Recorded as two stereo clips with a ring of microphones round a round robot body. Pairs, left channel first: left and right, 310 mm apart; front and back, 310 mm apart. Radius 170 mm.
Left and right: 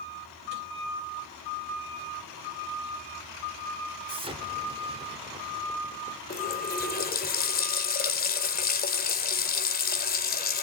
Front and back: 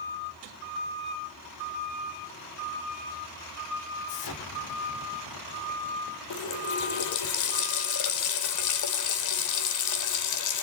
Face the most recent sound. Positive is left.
turn(degrees=30)